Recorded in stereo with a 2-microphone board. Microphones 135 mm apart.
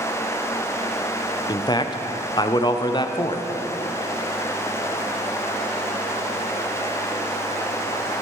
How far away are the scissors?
No scissors in this recording.